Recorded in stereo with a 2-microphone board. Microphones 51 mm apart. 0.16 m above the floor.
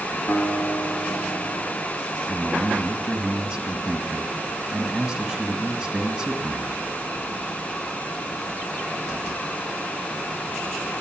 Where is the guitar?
40° left (ahead or behind), 0.8 m.